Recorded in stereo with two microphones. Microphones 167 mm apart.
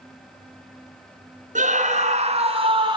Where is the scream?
50° right (ahead or behind), 1.9 m; by 3.0 s 25° right (ahead or behind), 1.5 m.